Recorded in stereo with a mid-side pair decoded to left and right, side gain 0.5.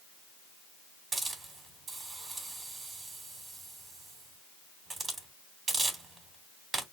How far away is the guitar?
No guitar in this recording.